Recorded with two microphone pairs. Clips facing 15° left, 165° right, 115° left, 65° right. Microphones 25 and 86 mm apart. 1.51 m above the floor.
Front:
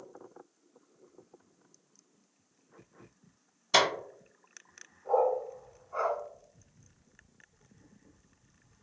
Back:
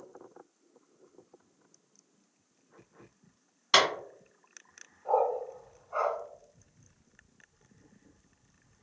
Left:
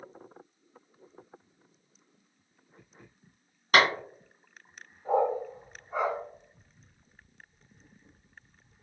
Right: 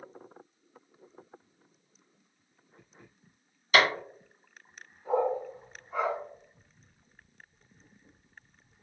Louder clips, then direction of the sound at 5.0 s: Even, left 2 dB; 165° left.